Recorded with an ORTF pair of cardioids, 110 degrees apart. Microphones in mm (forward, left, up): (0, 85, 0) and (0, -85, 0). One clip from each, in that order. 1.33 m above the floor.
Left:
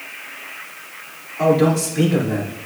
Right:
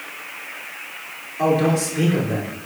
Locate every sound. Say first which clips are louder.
1.4 s a man speaking: left 3 dB; 5° left, 3.5 m; by 2.5 s 10° left, 4.5 m